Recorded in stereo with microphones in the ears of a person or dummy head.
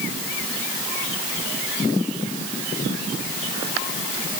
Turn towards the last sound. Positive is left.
No sound to turn to.